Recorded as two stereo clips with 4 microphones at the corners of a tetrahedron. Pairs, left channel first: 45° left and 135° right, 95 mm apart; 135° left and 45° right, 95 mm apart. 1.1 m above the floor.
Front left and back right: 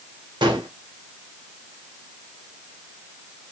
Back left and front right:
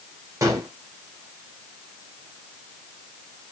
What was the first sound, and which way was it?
A gunshot, 100° right.